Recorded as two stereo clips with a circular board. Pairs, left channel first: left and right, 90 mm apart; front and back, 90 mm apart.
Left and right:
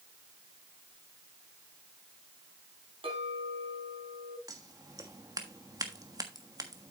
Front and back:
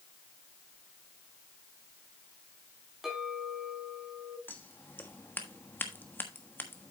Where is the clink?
95° right, 4 m.